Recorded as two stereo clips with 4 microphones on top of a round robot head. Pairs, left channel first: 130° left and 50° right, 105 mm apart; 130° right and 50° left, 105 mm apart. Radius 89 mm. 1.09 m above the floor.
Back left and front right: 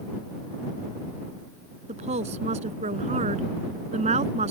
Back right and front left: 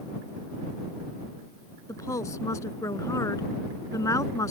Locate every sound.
1.9 s a woman speaking: 65° right